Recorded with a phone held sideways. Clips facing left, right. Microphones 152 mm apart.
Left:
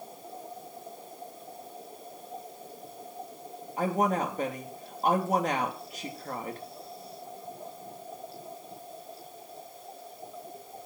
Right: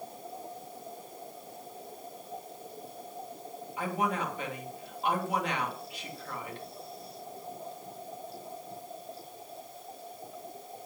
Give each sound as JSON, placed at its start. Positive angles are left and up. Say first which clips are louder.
{"t": 3.8, "sound": "a woman speaking", "louder": "left 5 dB", "side_deg": 40, "distance_m": 2.5}